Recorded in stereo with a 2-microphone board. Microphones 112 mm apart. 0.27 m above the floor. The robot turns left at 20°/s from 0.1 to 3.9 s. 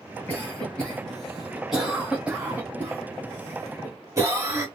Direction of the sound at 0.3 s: 15° left (ahead or behind).